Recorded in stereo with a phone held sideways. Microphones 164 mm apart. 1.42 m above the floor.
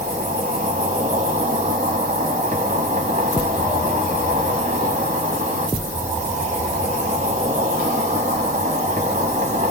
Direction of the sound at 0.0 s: 45° right (ahead or behind).